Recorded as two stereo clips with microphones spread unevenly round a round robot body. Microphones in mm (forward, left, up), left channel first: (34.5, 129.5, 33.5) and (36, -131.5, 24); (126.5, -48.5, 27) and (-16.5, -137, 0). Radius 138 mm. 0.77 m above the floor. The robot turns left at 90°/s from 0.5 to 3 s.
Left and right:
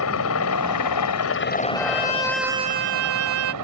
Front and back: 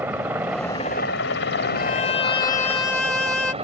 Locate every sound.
0.0 s a helicopter: 130° left; by 3.6 s 95° right
1.8 s a violin: 55° left; by 3.5 s 55° right